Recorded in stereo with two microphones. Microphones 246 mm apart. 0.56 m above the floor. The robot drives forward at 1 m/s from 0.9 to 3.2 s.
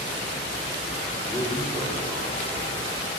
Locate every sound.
1.3 s a man speaking: 15° left (ahead or behind), 2 m; by 2.7 s 10° left (ahead or behind), 3.5 m